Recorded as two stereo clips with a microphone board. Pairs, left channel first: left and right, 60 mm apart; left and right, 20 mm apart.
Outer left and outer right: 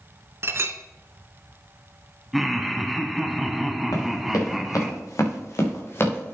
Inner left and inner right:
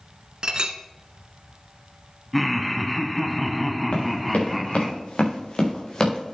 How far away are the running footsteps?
About 5 m.